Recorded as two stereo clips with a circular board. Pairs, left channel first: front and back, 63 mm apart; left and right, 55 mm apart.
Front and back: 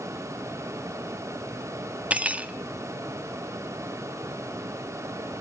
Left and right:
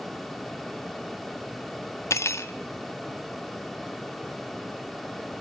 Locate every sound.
2.1 s cutlery clinking: 115° left, 1.1 m